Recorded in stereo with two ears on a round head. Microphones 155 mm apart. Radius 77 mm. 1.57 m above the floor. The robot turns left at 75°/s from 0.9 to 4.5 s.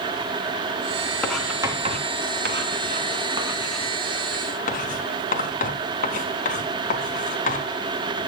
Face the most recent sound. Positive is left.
turn(degrees=50)  # may be behind; listen again after turning